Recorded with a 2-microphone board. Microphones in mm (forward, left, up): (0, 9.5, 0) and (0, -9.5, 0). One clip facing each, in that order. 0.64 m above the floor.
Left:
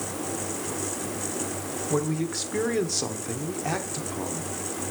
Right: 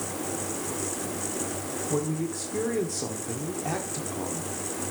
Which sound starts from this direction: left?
A man speaking, at 1.9 s.